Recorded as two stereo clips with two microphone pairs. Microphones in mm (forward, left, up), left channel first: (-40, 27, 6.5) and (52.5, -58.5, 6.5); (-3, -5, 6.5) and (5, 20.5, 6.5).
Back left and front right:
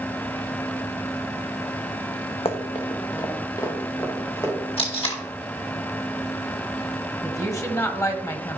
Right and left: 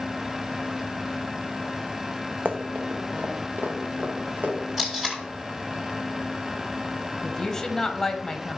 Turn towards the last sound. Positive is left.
turn(degrees=-175)